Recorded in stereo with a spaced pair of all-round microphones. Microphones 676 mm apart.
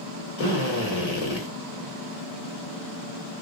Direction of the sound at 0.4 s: 60° left (ahead or behind).